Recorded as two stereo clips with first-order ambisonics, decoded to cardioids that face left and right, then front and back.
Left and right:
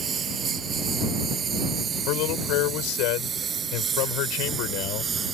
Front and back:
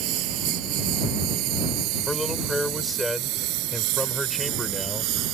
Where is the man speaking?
85° left.